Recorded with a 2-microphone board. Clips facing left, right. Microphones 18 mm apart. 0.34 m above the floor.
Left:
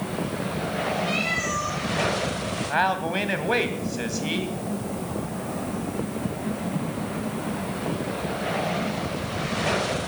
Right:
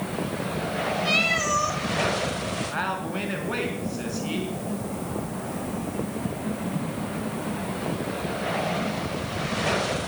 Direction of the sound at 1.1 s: 25° right (ahead or behind).